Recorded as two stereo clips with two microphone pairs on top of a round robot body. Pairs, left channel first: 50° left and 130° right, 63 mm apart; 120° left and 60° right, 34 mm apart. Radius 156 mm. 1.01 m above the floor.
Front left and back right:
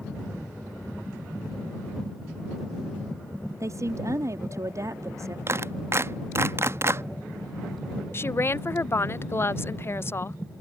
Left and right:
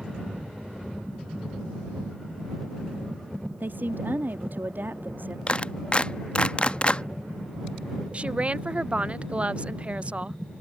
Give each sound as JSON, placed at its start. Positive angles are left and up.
{"t": 3.6, "sound": "a woman speaking", "azimuth_deg": -90}
{"t": 5.5, "sound": "a clap", "azimuth_deg": 175}
{"t": 8.1, "sound": "a woman speaking", "azimuth_deg": -5}